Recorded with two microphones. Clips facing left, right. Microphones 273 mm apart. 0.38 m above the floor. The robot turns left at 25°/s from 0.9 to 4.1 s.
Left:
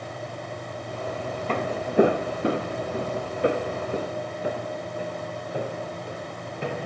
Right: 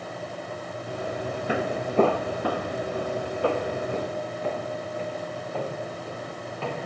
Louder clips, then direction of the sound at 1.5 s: Even; 10° right (ahead or behind).